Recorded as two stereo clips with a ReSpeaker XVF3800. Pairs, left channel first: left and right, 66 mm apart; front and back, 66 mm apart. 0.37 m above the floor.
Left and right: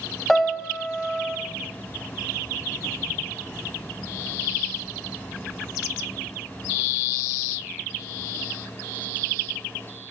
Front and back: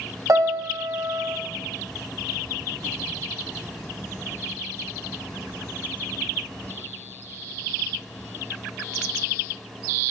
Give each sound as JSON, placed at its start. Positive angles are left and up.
{"t": 0.3, "sound": "a piano", "azimuth_deg": 170, "distance_m": 0.7}